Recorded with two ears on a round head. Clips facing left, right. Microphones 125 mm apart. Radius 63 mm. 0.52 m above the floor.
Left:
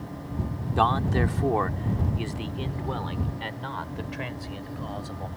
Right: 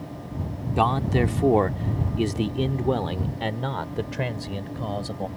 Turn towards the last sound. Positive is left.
turn(degrees=-50)  # may be behind; listen again after turning